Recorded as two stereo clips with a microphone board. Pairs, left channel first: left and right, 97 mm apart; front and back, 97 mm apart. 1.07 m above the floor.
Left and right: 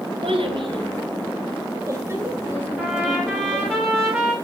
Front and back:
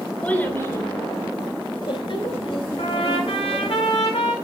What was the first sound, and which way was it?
A child speaking, 75° right.